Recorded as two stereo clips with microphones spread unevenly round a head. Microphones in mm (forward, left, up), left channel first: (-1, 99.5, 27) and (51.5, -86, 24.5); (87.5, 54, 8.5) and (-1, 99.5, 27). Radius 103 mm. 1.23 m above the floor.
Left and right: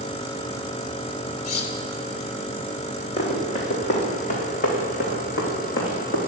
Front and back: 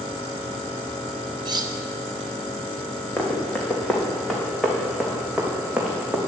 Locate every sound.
1.4 s cutlery clinking: 110° left, 1.2 m
3.2 s running footsteps: 50° left, 3.5 m; by 6.2 s 80° left, 3.5 m